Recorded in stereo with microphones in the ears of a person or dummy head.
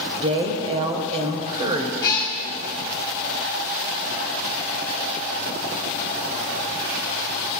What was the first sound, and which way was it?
A woman speaking, 30° right (ahead or behind).